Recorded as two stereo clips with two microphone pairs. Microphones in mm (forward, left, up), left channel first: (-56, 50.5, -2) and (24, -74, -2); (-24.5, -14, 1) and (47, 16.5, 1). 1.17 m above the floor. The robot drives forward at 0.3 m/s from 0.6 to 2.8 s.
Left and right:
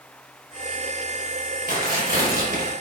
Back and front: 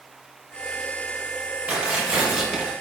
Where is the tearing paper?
50° right, 1.3 m; by 2.7 s 65° right, 1.1 m.